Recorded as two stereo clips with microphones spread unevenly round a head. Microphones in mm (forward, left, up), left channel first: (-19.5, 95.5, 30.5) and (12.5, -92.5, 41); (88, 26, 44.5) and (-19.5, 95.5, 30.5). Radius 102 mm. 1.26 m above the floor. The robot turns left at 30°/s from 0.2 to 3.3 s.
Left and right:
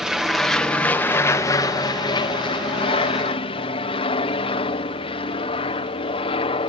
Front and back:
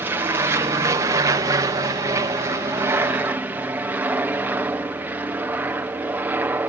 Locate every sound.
0.0 s an aircraft: 170° right; by 6.7 s 95° left